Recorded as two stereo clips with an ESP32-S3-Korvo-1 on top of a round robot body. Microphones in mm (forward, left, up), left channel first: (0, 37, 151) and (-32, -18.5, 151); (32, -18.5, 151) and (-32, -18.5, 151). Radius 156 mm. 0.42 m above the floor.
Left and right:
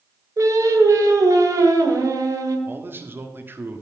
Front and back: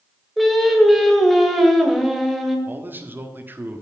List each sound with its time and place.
0.4 s singing: 90° right, 1.8 m
2.7 s a man speaking: 145° right, 1.5 m